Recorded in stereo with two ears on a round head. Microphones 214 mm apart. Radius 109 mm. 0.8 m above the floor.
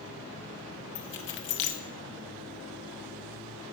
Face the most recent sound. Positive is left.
turn(degrees=50)  # may be behind; listen again after turning